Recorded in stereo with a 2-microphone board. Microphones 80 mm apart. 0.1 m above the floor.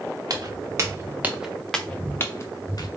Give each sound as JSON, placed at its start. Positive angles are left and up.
{"t": 0.3, "sound": "footsteps", "side_deg": -50, "distance_m": 0.9}